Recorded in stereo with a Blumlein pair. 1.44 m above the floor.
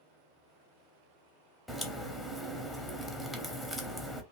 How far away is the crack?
About 0.6 m.